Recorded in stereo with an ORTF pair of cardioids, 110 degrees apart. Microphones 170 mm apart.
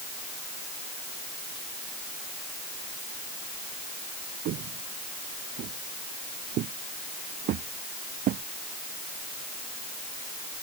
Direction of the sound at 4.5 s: 70° right.